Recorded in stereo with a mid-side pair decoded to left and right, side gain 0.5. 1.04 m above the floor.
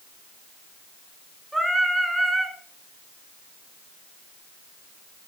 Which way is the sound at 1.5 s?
Straight ahead.